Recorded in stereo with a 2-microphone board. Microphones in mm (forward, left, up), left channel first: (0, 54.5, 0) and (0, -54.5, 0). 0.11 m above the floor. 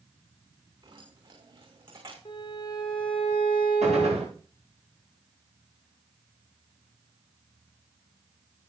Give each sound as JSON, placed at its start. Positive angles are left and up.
{"t": 0.8, "sound": "keys jangling", "side_deg": -50, "distance_m": 6.0}
{"t": 2.2, "sound": "a violin", "side_deg": 45, "distance_m": 5.0}
{"t": 3.8, "sound": "a gunshot", "side_deg": -85, "distance_m": 8.5}